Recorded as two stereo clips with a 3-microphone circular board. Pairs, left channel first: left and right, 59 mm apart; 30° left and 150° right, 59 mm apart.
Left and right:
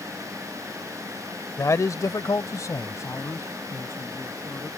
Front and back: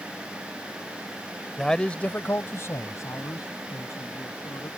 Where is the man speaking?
115° left; by 4.7 s 40° left.